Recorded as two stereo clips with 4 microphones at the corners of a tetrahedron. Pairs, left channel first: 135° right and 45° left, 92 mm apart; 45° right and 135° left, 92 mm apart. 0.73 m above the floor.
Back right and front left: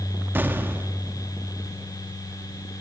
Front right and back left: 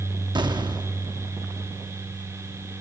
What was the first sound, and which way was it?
An explosion, 110° left.